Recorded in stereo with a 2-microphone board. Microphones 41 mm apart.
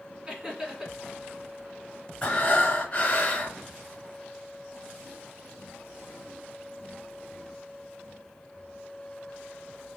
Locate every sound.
0.3 s laughter: 20° right (ahead or behind), 1.5 m
2.2 s breathing: 30° left (ahead or behind), 2 m